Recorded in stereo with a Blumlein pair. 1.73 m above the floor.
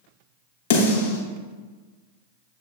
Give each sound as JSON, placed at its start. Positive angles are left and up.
{"t": 0.7, "sound": "a snare drum", "azimuth_deg": 60, "distance_m": 1.0}